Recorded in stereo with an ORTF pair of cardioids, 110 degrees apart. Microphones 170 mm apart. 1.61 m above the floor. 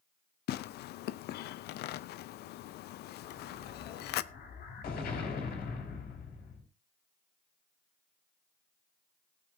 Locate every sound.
0.5 s tearing paper: 70° left, 0.6 m
3.2 s an explosion: 70° left, 4 m